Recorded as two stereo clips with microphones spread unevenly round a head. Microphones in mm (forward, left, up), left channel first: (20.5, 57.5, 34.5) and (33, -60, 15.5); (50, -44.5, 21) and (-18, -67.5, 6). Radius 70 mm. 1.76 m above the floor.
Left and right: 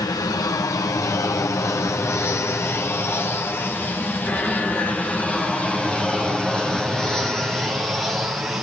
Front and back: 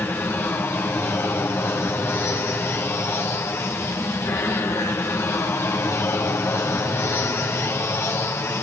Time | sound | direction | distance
0.0 | an aircraft | 65° left | ?